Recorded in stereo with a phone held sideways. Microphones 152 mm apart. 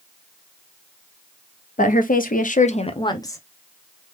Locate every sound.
1.8 s a woman speaking: 60° left (ahead or behind), 0.8 m; by 3.4 s 20° left (ahead or behind), 0.8 m